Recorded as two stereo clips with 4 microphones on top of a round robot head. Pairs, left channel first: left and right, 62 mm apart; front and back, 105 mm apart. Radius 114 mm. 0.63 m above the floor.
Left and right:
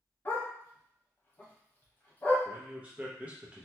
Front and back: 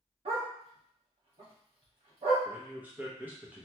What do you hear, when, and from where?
0.2 s a dog barking: 150° left, 1.1 m
2.5 s a man speaking: 130° right, 0.8 m